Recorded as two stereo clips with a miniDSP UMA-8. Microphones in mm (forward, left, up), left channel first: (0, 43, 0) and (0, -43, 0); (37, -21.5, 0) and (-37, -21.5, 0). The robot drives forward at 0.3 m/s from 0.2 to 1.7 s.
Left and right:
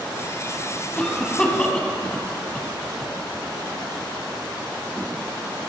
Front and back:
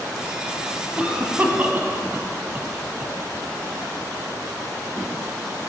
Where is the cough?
145° left, 1.0 m; by 3.1 s 160° left, 1.1 m.